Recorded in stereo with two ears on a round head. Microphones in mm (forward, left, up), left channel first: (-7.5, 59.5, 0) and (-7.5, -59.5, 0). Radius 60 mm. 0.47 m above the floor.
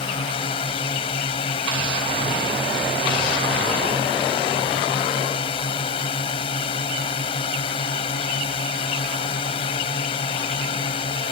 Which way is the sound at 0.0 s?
40° left (ahead or behind).